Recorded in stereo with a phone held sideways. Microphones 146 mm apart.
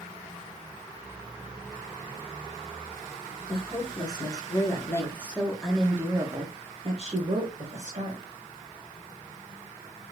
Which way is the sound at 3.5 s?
35° left (ahead or behind).